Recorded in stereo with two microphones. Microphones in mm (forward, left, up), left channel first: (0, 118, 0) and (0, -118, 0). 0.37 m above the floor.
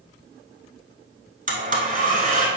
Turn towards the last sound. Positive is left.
turn(degrees=-35)  # may be behind; listen again after turning